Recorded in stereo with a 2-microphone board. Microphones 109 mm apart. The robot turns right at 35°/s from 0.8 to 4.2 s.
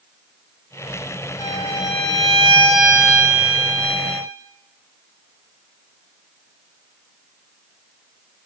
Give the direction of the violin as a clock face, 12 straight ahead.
7 o'clock.